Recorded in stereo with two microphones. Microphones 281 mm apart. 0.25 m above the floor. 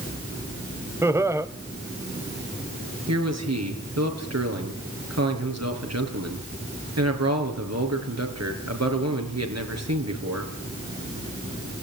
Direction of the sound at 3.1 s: 65° right (ahead or behind).